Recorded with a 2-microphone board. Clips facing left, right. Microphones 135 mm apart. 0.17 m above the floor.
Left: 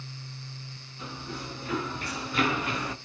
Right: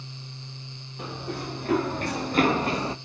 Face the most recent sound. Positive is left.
turn(degrees=-30)  # may be behind; listen again after turning